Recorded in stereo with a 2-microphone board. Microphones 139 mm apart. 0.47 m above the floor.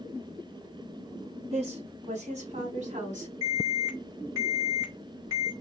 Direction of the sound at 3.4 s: 25° right (ahead or behind).